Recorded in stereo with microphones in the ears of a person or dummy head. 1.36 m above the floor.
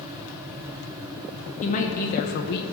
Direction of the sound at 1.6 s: 45° left (ahead or behind).